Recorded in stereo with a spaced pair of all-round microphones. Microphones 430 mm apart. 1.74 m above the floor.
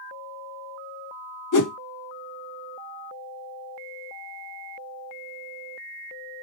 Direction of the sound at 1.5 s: 45° left (ahead or behind).